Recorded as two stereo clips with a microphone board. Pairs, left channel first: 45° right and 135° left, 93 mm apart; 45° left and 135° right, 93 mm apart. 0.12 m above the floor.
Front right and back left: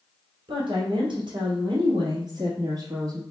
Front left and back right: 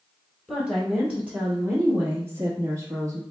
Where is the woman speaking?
145° left, 2.5 m; by 3.2 s 175° right, 1.9 m.